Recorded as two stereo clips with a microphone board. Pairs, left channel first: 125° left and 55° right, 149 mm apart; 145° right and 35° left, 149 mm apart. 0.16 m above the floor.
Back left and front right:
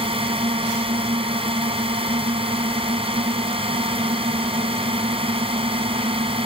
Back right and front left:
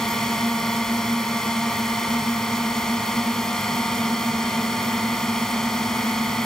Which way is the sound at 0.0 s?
60° right.